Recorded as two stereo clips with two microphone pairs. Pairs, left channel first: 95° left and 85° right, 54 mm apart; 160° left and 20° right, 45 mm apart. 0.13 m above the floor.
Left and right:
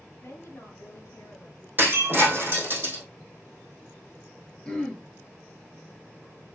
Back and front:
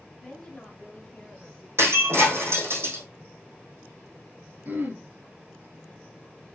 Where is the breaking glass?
40° right, 3 m.